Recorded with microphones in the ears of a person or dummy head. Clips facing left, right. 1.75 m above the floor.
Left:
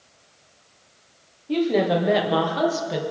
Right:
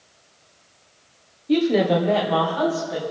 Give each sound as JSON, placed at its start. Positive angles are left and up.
{"t": 1.5, "sound": "a woman speaking", "side_deg": -25, "distance_m": 1.1}